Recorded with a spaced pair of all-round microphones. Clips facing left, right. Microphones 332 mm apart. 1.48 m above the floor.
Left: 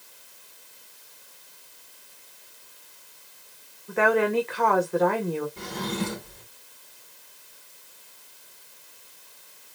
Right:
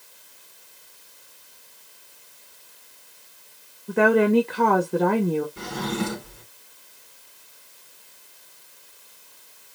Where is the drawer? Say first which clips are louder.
Right 3 dB; 15° right (ahead or behind), 3.5 m.